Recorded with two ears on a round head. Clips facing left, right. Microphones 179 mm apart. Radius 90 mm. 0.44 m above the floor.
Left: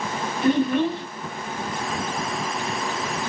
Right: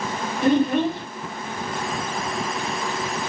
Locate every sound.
0.4 s a child speaking: 40° right (ahead or behind), 1.7 m